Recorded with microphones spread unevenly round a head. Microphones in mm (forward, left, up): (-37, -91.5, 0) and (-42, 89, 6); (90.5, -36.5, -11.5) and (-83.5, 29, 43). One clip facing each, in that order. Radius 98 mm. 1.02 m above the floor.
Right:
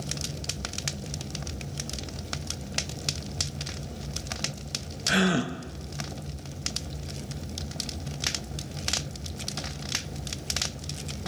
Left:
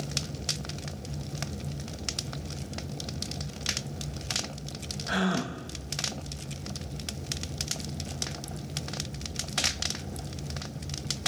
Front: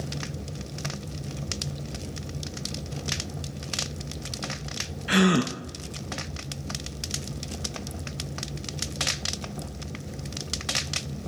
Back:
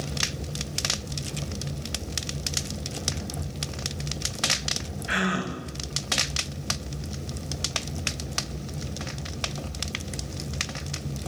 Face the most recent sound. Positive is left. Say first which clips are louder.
# right 4 dB, front 8 dB
turn(degrees=-25)